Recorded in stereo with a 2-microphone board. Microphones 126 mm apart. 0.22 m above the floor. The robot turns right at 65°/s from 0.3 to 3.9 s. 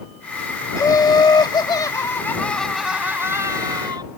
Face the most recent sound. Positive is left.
turn(degrees=-100)